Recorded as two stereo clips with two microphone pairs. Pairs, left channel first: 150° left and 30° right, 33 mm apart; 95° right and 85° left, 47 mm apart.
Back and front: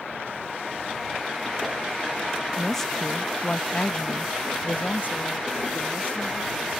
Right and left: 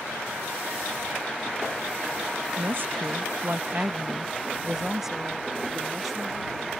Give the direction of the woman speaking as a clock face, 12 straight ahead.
10 o'clock.